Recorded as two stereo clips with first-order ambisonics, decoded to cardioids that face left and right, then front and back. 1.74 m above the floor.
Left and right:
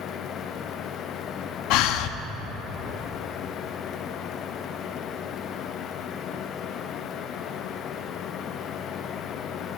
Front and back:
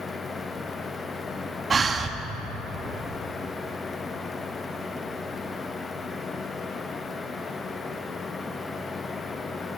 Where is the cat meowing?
I don't hear a cat meowing.